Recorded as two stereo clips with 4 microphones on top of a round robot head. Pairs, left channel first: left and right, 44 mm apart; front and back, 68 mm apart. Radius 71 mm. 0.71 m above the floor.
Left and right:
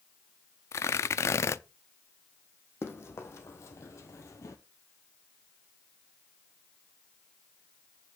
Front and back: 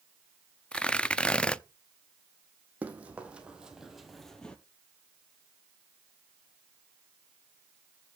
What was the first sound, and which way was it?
Tearing paper, 75° left.